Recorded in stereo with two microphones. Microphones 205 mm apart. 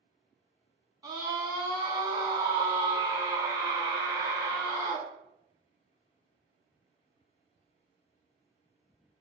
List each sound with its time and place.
1.0 s a scream: 20° right (ahead or behind), 1.2 m